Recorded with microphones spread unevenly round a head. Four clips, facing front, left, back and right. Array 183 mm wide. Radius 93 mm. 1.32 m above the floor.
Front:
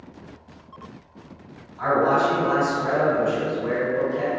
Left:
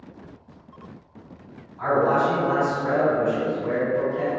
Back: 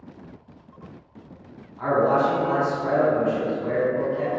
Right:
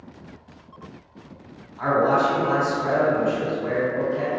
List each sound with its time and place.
1.8 s a man speaking: 60° right, 1.3 m